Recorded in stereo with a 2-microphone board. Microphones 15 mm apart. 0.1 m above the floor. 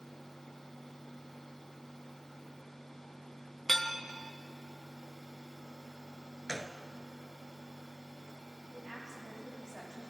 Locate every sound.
3.7 s dishes clattering: 20° left (ahead or behind), 0.8 m
6.5 s a gunshot: 35° right (ahead or behind), 0.6 m
8.7 s a woman speaking: 55° left (ahead or behind), 5 m